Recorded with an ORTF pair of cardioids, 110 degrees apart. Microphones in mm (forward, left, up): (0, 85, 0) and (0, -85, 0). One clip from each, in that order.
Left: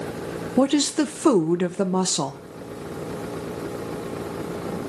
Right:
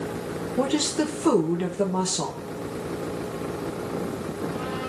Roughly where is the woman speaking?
Ahead left.